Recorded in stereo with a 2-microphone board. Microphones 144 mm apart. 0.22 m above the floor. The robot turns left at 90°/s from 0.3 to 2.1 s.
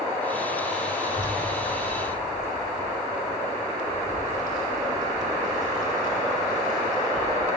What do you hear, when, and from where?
1.0 s a child speaking: 60° right (ahead or behind), 2.5 m; by 7.6 s 25° left (ahead or behind), 2.5 m